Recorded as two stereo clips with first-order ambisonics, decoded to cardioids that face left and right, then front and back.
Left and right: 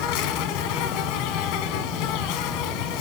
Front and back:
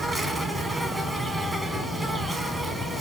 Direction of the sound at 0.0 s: 100° left.